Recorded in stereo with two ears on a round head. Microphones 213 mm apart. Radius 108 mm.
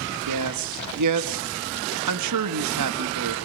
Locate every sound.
0.3 s a man speaking: 80° right, 2.0 m